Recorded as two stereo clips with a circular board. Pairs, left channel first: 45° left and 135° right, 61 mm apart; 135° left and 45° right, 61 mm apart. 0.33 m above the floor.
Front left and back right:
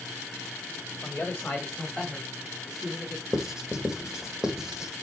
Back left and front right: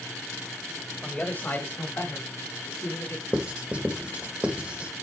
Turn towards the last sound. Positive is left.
turn(degrees=-70)